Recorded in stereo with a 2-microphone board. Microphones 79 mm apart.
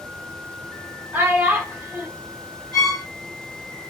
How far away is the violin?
About 2.5 m.